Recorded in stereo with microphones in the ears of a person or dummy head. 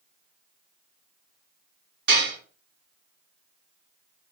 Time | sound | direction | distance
2.1 | dishes clattering | 55° right (ahead or behind) | 1.6 m